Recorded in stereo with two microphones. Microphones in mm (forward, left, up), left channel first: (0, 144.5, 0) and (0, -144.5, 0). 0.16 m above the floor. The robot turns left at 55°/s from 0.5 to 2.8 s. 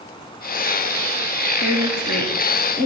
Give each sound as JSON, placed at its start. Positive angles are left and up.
{"t": 1.6, "sound": "a woman speaking", "azimuth_deg": 75, "distance_m": 2.5}